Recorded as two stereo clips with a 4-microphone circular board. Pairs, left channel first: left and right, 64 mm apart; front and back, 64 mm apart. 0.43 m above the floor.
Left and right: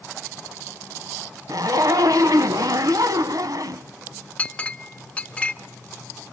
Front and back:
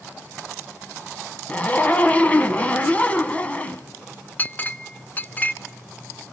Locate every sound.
1.5 s a zipper: 65° right, 1.0 m
4.4 s a clink: 35° left, 0.5 m